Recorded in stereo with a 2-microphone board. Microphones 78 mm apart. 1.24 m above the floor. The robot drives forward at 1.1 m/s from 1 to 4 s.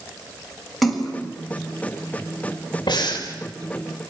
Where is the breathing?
70° left (ahead or behind), 4.5 m; by 3.3 s 75° left (ahead or behind), 4.5 m.